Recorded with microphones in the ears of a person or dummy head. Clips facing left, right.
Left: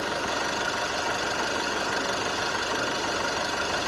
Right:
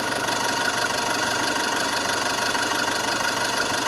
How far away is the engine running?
About 4 m.